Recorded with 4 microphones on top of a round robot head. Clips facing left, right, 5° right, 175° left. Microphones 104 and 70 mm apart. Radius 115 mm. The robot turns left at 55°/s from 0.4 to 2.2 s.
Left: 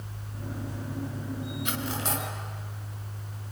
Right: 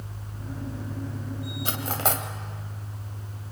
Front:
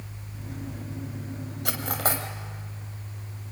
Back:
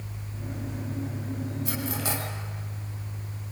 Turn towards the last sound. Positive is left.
turn(degrees=-60)